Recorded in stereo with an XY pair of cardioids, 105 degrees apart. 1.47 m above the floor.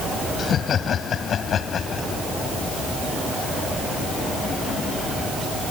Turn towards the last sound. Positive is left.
turn(degrees=55)